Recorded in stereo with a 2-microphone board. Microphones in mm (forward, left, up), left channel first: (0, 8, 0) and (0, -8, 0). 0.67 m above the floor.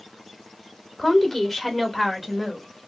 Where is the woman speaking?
25° left (ahead or behind), 0.9 m; by 2.9 s 20° right (ahead or behind), 1.2 m.